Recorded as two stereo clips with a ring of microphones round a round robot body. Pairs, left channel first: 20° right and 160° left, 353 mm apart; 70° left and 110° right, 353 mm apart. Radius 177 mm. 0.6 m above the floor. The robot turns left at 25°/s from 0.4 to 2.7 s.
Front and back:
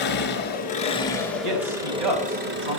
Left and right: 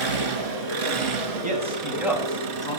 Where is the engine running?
85° right, 3 m; by 2.8 s 145° right, 3 m.